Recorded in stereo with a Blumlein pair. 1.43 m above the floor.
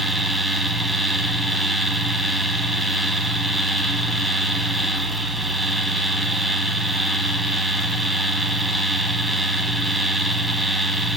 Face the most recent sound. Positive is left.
turn(degrees=-5)